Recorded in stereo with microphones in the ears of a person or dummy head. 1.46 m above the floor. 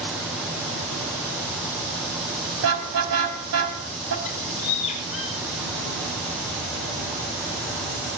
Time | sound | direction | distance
2.6 | a car horn | 80° right | 4.5 m
4.2 | a bird | 40° left (ahead or behind) | 4.5 m